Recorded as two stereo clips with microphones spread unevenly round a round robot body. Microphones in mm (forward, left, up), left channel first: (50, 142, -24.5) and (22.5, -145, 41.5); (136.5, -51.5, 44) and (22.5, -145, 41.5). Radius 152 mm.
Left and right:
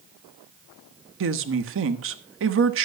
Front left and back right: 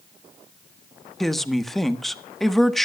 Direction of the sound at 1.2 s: 50° right.